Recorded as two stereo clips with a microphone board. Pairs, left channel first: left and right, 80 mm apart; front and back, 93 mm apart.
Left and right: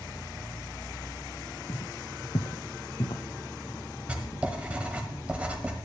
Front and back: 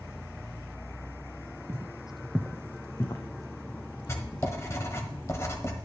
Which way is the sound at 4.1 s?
30° right.